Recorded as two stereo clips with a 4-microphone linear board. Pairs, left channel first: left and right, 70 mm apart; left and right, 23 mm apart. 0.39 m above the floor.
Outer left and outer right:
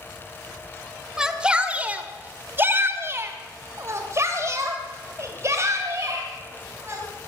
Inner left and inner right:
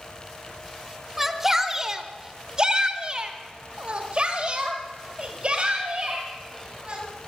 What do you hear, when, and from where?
1.2 s a shout: 10° right (ahead or behind), 1.5 m; by 7.0 s 40° right (ahead or behind), 3.5 m